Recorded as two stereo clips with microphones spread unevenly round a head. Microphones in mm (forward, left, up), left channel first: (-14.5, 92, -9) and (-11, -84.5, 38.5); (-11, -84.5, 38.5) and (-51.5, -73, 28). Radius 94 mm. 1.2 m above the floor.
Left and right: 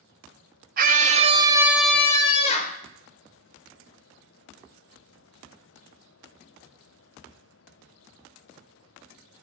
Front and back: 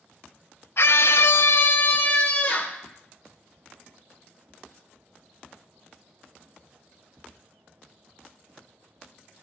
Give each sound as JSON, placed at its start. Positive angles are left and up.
{"t": 0.8, "sound": "a scream", "azimuth_deg": -40, "distance_m": 1.2}